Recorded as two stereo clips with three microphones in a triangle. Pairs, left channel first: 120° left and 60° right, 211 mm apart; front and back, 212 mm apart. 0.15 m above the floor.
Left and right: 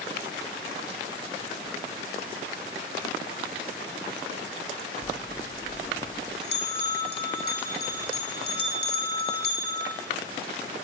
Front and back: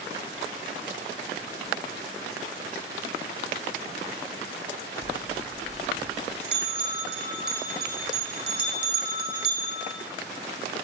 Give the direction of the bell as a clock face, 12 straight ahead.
7 o'clock.